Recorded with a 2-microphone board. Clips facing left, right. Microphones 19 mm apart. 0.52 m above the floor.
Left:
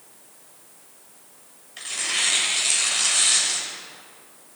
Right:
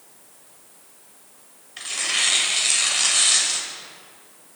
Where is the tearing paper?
15° right (ahead or behind), 2 m.